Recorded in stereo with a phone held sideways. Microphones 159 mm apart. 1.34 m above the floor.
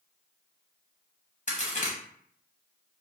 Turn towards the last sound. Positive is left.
turn(degrees=50)  # may be behind; listen again after turning